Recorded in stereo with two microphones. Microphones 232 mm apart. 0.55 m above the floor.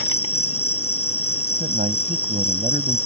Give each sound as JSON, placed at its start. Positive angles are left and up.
{"t": 0.0, "sound": "an insect", "side_deg": 75}
{"t": 1.6, "sound": "a man speaking", "side_deg": -35}